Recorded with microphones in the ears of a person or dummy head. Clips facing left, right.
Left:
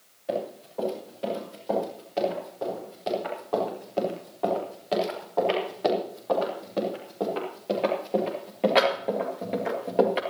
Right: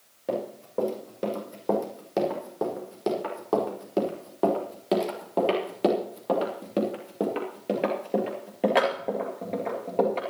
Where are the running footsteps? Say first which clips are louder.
Even; 75° right (ahead or behind), 6 m; by 10.2 s 10° left (ahead or behind), 2.5 m.